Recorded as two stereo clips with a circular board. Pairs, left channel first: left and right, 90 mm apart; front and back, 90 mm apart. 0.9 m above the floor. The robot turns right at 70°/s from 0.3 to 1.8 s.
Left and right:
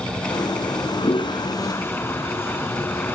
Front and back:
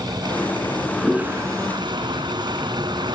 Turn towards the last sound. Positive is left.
turn(degrees=150)